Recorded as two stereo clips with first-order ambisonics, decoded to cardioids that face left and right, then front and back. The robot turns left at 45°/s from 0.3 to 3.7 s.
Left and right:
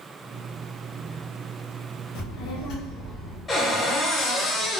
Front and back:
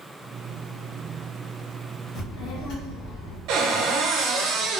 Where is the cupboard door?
165° left, 0.5 m; by 4.8 s 155° left, 0.5 m.